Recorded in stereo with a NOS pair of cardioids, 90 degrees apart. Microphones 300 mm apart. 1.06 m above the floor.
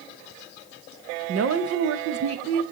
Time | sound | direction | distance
1.3 | a woman speaking | 50° right | 0.9 m